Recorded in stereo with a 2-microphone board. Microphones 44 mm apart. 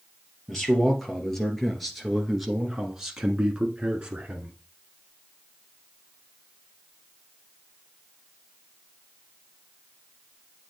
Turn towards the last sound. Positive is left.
turn(degrees=-30)  # may be behind; listen again after turning